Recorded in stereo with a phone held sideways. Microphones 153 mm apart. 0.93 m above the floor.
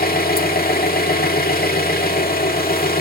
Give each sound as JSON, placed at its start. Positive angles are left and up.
{"t": 0.0, "sound": "an engine running", "side_deg": 80, "distance_m": 1.7}